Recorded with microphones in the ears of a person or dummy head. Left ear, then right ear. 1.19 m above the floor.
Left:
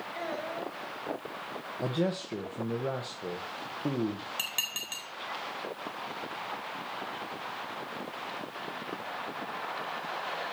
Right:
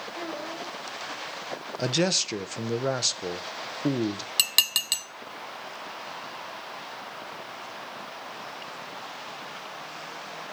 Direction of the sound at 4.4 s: 40° right (ahead or behind).